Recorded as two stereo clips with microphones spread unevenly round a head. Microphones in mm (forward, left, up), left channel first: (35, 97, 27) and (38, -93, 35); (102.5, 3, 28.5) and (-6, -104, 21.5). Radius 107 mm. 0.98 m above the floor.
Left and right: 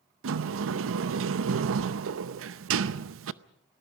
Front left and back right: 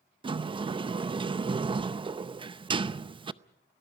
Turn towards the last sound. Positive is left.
turn(degrees=-75)